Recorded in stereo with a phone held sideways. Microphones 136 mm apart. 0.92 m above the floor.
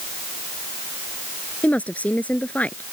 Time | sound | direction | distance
1.6 | a woman speaking | 10° left (ahead or behind) | ?